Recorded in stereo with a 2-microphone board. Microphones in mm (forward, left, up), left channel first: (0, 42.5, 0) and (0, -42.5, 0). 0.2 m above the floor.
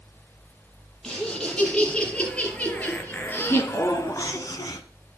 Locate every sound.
1.0 s laughter: 10° left (ahead or behind), 5 m; by 4.8 s 50° left (ahead or behind), 1.6 m